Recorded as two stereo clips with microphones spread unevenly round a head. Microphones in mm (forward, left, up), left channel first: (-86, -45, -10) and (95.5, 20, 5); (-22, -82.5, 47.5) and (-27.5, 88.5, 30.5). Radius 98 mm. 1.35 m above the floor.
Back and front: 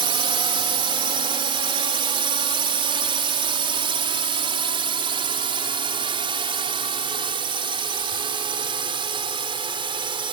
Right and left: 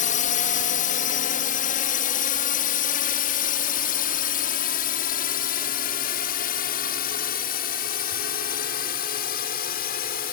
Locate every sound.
0.0 s a drone: 45° right